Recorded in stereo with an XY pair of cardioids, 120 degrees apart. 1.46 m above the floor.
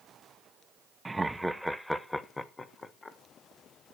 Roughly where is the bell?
No bell in this recording.